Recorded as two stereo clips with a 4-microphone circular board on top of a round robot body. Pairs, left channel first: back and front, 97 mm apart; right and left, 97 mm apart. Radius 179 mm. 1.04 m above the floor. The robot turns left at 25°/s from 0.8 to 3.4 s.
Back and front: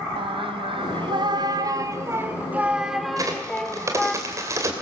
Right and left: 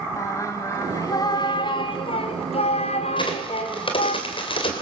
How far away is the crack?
About 2.5 m.